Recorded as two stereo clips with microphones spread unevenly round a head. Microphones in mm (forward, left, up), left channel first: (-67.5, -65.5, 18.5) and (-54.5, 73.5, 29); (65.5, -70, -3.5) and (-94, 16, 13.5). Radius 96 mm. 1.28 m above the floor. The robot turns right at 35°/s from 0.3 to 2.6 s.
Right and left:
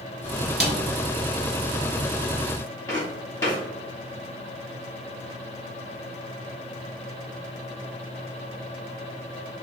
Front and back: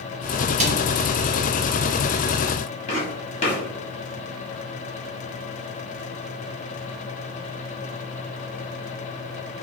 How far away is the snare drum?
About 1.4 m.